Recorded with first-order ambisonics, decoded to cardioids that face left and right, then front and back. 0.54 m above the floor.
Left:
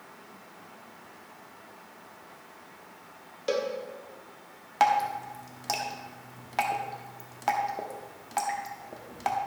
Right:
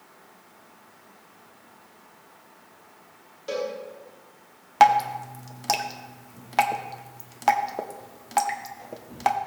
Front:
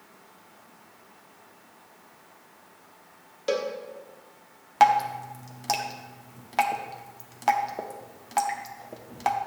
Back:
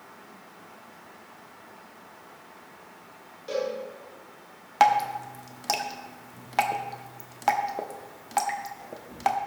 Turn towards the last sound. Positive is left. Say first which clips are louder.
# right 6 dB, front 1 dB
turn(degrees=-105)